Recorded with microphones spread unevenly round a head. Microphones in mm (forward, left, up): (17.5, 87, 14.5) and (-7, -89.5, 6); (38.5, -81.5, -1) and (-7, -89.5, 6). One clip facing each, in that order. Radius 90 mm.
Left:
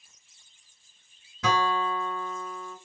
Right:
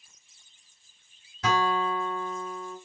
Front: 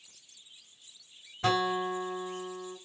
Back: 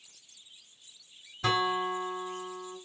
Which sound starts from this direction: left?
A guitar, at 1.4 s.